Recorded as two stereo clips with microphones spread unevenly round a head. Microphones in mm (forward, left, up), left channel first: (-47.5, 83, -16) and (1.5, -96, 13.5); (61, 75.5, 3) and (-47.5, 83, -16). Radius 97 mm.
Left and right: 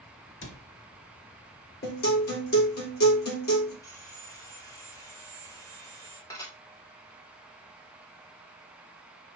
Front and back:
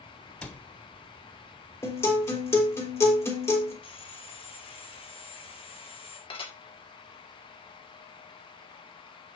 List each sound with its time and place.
0.4 s a cupboard door: 75° left, 1.6 m
1.8 s a guitar: 60° left, 4.5 m
3.8 s sawing: 30° left, 2 m
6.3 s dishes clattering: 30° left, 2.5 m